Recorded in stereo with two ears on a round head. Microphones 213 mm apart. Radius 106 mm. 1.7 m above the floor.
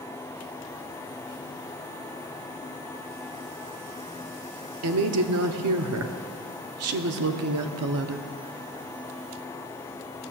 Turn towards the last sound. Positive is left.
turn(degrees=-70)  # may be behind; listen again after turning